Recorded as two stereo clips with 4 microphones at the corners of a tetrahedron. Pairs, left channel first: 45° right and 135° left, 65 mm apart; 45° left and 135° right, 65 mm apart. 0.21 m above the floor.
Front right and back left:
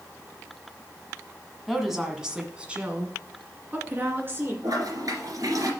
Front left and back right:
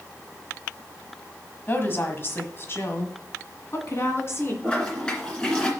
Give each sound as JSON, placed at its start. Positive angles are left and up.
{"t": 1.7, "sound": "a woman speaking", "azimuth_deg": 50, "distance_m": 1.5}
{"t": 4.6, "sound": "a toilet flushing", "azimuth_deg": 120, "distance_m": 2.5}